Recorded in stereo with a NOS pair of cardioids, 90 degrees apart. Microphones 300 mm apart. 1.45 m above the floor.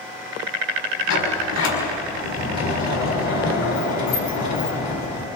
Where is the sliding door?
65° left, 6 m.